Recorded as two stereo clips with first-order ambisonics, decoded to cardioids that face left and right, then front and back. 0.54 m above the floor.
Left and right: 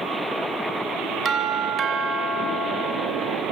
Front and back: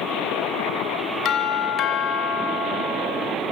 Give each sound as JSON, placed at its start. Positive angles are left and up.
{"t": 1.2, "sound": "a doorbell", "azimuth_deg": -50, "distance_m": 2.5}